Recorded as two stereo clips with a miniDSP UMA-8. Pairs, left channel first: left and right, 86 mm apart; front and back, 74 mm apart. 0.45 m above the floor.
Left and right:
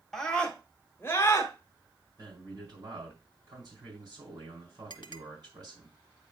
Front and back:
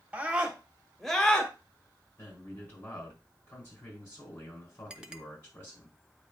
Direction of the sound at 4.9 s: 100° left.